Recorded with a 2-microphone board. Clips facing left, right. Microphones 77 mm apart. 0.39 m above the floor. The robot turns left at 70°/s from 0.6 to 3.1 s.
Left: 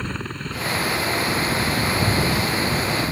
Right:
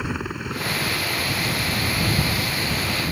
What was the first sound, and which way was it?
A helicopter, 170° right.